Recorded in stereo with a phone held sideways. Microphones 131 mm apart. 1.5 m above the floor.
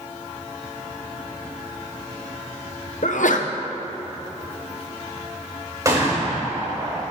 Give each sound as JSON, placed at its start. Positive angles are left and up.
{"t": 3.0, "sound": "a sneeze", "side_deg": 75, "distance_m": 0.9}
{"t": 5.8, "sound": "a gunshot", "side_deg": -25, "distance_m": 3.5}